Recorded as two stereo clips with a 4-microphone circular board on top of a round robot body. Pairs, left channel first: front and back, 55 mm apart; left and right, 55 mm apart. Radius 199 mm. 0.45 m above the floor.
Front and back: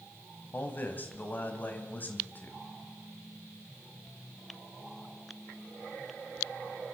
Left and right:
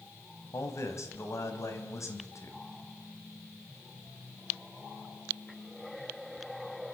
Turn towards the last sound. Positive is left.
turn(degrees=55)